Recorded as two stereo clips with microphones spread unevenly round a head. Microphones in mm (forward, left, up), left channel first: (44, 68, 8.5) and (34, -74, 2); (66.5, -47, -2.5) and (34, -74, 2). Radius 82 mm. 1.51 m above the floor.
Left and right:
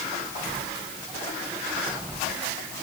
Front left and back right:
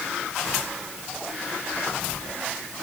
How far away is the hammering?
I don't hear hammering.